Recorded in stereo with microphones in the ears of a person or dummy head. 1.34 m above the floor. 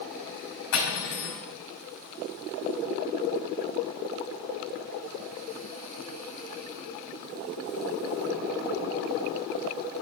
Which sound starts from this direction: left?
Cutlery clinking, at 0.7 s.